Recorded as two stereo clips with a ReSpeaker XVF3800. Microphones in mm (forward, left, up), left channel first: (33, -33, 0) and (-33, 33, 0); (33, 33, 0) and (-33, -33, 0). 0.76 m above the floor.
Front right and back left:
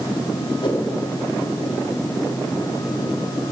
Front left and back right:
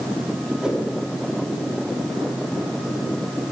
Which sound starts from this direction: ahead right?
A whoosh, at 0.6 s.